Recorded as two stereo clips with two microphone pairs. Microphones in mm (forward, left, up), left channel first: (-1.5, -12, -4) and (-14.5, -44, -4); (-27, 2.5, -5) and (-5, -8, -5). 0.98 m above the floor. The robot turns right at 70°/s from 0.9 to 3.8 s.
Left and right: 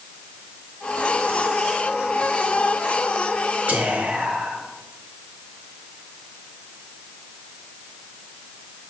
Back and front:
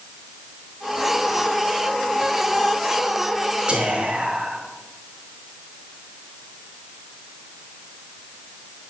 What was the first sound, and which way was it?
Whispering, 70° right.